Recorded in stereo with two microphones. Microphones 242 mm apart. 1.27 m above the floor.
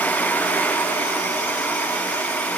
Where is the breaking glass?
No breaking glass in this recording.